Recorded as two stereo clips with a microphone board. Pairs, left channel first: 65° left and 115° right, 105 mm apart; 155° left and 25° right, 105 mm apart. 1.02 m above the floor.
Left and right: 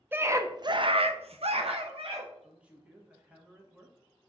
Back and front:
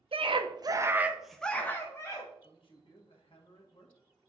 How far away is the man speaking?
About 1.4 m.